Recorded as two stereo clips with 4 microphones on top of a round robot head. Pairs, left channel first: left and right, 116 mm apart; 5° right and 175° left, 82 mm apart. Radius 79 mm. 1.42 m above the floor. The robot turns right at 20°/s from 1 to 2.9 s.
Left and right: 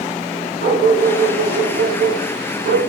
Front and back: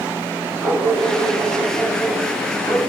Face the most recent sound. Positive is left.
turn(degrees=-60)